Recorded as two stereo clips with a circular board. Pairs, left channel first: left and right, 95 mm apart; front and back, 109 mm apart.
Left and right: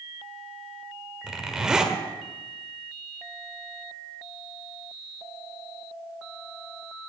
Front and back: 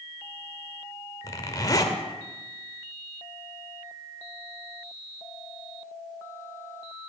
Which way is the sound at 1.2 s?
15° right.